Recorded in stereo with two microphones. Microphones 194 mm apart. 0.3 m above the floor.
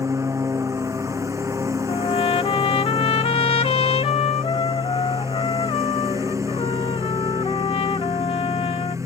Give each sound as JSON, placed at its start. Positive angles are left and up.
{"t": 0.0, "sound": "a lawn mower", "side_deg": -15}
{"t": 1.9, "sound": "a trumpet", "side_deg": 30}